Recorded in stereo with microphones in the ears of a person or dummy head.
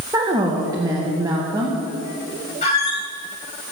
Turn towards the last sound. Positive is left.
turn(degrees=40)  # may be behind; listen again after turning